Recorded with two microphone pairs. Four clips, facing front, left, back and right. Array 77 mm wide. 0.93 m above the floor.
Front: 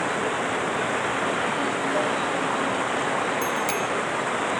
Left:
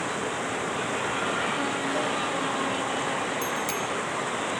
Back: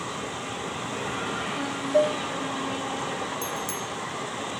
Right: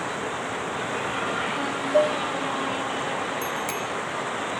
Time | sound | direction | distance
0.0 | running water | 10° right | ?
1.9 | dishes clattering | 115° right | ?
3.4 | a bicycle bell | 20° right | ?